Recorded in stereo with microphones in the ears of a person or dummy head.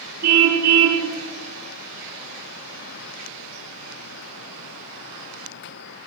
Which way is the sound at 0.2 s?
50° right (ahead or behind).